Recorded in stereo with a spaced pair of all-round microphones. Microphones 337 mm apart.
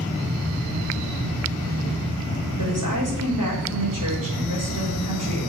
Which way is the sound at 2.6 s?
70° right (ahead or behind).